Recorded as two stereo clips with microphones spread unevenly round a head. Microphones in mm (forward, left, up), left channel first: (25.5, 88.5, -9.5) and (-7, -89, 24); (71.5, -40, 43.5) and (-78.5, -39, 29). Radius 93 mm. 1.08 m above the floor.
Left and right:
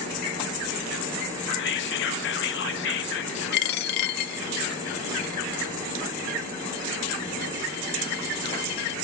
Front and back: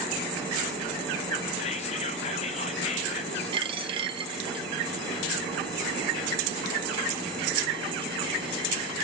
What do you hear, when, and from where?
1.6 s whispering: 55° left, 1.0 m
3.5 s a dropped coin: 115° left, 0.6 m